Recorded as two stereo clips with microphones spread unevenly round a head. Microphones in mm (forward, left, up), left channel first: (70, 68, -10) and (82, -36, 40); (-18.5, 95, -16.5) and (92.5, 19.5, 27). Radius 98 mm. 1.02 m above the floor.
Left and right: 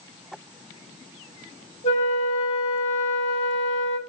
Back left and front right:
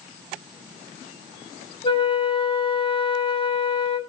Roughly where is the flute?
Left.